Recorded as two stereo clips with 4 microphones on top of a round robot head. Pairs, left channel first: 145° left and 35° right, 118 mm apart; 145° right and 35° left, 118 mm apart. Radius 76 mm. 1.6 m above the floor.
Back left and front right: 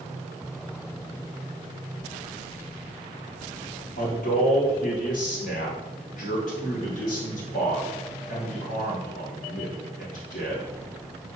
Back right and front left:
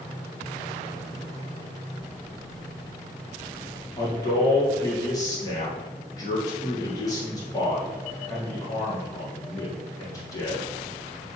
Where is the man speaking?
155° left, 3 m.